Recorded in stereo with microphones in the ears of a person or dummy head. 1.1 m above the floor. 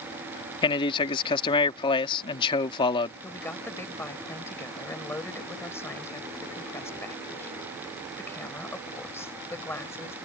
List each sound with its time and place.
0.6 s a man speaking: 30° left (ahead or behind)
3.2 s a woman speaking: 5° left (ahead or behind)